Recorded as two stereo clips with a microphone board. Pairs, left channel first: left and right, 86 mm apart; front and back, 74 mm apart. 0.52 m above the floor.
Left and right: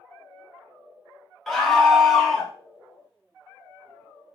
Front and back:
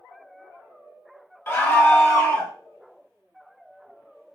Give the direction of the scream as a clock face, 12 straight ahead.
12 o'clock.